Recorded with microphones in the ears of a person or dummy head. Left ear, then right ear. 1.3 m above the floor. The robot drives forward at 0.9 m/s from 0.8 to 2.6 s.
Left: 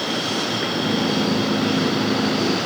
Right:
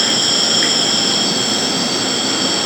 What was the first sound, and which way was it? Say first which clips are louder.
An insect: right 8 dB; 60° right (ahead or behind).